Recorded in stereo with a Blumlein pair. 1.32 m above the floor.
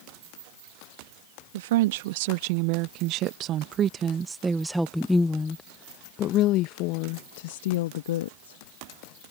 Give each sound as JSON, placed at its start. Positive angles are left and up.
{"t": 1.5, "sound": "a woman speaking", "azimuth_deg": -55}